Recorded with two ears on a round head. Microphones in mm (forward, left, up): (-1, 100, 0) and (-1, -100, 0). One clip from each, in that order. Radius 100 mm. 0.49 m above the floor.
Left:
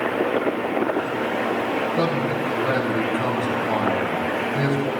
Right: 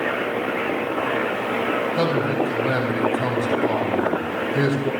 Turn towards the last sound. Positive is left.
turn(degrees=-30)  # may be behind; listen again after turning